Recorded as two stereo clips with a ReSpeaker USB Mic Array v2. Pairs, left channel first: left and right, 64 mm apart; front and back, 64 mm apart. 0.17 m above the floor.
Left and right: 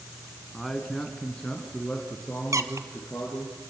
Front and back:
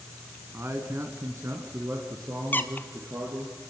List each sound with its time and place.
0.5 s a man speaking: straight behind, 1.9 m; by 3.5 s 150° left, 4 m
2.5 s a squeak: 60° right, 1.1 m